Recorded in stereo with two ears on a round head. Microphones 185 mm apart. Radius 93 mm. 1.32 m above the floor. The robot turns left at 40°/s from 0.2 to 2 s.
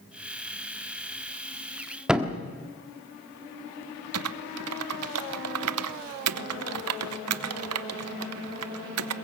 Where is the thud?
5° right (ahead or behind), 1.5 m.